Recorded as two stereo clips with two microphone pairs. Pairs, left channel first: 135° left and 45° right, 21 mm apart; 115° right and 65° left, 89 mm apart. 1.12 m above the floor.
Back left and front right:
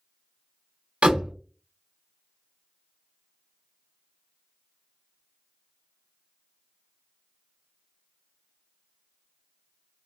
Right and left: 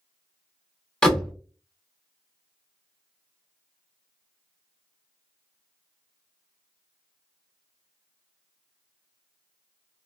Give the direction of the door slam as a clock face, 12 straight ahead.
1 o'clock.